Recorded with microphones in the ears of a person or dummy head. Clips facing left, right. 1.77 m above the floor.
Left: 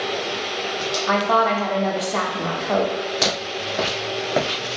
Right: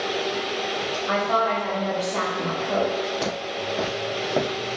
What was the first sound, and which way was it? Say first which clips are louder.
A woman speaking: left 4 dB; 65° left (ahead or behind).